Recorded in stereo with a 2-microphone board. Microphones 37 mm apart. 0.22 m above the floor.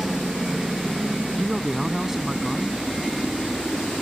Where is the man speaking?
10° right (ahead or behind).